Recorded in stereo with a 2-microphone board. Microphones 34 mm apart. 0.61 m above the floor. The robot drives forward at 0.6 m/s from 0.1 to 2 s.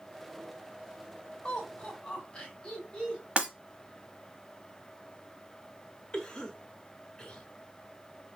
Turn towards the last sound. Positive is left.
turn(degrees=20)  # may be behind; listen again after turning